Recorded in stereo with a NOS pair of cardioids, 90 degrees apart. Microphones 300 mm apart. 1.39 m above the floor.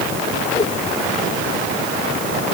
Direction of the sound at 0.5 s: 20° left.